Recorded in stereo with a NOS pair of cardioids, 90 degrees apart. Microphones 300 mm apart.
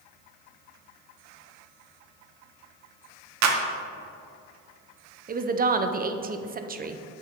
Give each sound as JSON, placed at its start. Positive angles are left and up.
{"t": 3.4, "sound": "a clap", "azimuth_deg": -65, "distance_m": 1.1}
{"t": 5.3, "sound": "a woman speaking", "azimuth_deg": -30, "distance_m": 0.7}